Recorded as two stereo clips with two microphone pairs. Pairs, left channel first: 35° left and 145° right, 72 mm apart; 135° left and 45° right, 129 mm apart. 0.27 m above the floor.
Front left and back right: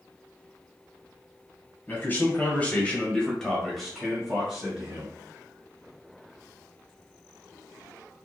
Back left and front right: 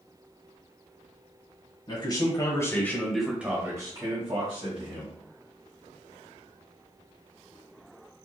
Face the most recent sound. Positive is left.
turn(degrees=-70)